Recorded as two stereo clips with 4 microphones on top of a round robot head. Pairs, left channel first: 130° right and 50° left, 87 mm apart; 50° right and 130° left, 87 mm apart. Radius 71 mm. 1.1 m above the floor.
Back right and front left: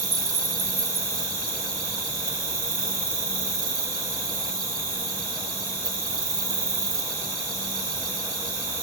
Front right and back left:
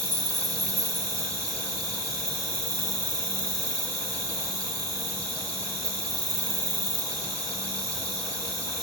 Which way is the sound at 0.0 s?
95° left.